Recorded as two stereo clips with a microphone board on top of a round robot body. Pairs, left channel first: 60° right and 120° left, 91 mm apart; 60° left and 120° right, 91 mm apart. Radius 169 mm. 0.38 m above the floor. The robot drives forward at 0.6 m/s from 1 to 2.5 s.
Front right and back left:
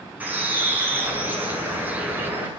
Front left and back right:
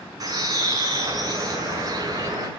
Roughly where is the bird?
Behind.